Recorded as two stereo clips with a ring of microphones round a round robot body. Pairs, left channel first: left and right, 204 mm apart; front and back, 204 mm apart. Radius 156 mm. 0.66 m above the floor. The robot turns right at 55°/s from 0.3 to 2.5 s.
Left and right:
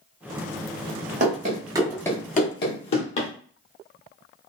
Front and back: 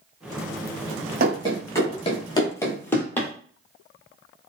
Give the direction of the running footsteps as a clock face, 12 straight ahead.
5 o'clock.